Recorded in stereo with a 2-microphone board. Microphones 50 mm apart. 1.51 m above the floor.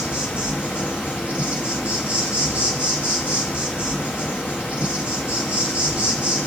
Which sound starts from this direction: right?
An insect, at 0.0 s.